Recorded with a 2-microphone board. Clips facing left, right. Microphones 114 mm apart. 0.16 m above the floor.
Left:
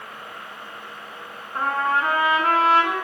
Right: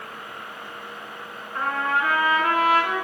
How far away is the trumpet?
About 1.8 m.